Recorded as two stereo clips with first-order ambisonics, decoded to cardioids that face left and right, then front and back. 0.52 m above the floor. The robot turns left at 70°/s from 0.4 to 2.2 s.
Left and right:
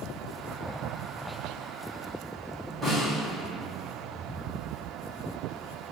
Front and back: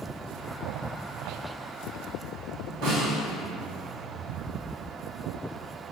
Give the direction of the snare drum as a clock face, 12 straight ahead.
6 o'clock.